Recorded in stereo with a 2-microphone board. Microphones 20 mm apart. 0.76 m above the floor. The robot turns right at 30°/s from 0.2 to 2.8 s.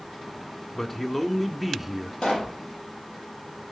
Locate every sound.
0.8 s a man speaking: 155° left, 1.5 m; by 2.1 s 165° right, 1.5 m
2.2 s a pop: 55° left (ahead or behind), 5 m; by 2.6 s 45° left (ahead or behind), 5 m